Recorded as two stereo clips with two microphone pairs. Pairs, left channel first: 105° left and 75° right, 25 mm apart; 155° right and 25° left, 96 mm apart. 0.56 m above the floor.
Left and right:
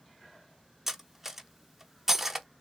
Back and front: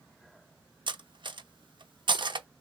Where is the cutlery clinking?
5° left, 0.6 m.